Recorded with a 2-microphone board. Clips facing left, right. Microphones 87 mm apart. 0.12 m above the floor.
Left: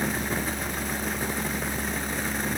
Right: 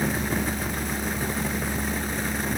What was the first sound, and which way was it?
Only background noise.